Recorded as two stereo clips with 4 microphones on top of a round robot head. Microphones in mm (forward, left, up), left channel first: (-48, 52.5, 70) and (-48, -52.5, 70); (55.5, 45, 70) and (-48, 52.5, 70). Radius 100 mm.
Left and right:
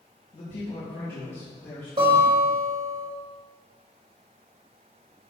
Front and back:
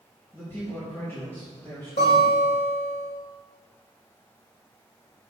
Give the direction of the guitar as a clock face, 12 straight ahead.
1 o'clock.